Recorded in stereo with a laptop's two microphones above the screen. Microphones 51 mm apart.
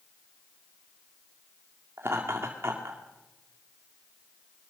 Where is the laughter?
55° right (ahead or behind), 2.5 m.